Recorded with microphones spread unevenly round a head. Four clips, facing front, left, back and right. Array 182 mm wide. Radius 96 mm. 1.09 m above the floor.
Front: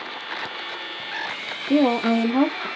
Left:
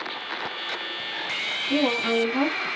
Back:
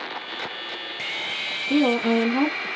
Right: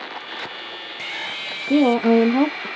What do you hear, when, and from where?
1.7 s a woman speaking: 50° right, 1.2 m